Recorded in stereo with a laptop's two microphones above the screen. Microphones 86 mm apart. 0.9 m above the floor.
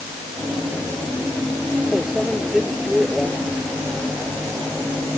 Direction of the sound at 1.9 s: 5° right (ahead or behind).